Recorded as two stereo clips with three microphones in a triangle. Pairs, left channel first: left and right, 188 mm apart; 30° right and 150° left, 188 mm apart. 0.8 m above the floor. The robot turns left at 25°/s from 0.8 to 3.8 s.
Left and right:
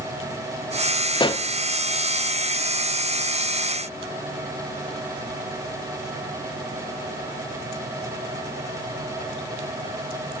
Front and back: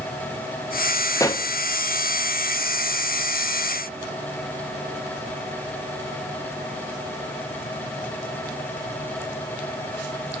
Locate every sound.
1.2 s a pop: 35° left, 0.7 m; by 1.4 s 30° left, 0.7 m